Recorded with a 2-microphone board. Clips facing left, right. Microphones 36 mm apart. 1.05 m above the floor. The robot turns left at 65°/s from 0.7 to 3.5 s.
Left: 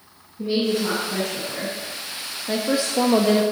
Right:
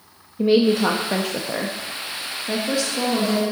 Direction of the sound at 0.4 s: 70° right.